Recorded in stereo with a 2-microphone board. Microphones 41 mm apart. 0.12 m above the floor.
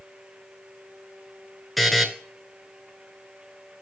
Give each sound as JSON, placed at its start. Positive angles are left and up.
{"t": 1.8, "sound": "a buzzer", "side_deg": 0, "distance_m": 0.9}